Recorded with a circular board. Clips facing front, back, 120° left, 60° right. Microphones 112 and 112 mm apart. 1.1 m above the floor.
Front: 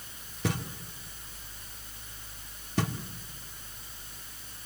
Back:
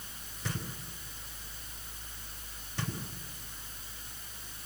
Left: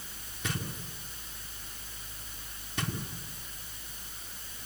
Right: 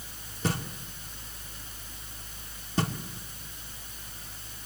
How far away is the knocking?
About 2.5 m.